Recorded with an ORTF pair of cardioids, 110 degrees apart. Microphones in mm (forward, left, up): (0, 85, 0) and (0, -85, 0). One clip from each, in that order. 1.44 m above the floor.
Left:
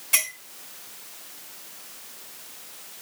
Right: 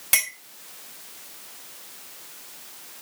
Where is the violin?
No violin in this recording.